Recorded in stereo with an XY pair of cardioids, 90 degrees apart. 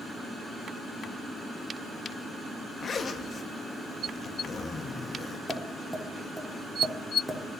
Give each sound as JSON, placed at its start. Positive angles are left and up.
{"t": 2.8, "sound": "a zipper", "azimuth_deg": 50, "distance_m": 0.6}
{"t": 5.5, "sound": "tapping", "azimuth_deg": -5, "distance_m": 1.3}